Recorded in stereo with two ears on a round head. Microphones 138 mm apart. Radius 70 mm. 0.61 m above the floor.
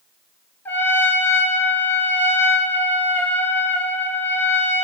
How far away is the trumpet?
About 1.7 m.